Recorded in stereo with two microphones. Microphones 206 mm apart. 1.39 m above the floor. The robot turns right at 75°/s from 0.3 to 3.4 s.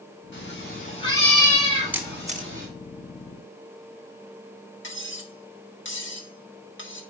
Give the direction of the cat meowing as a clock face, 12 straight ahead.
9 o'clock.